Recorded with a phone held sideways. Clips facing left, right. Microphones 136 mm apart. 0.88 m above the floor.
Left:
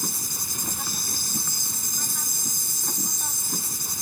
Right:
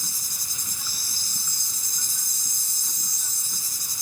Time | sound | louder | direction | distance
0.0 | an insect | left 10 dB | 60° left (ahead or behind) | ?